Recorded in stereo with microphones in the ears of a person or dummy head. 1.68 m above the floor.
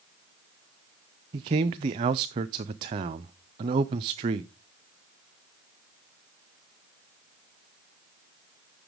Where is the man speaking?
25° right (ahead or behind), 0.5 m.